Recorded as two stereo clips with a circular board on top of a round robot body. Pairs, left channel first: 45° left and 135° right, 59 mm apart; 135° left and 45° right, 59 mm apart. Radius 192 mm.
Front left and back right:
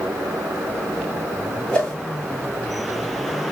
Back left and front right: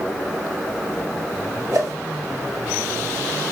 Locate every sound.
1.7 s a whoosh: 30° right, 1.7 m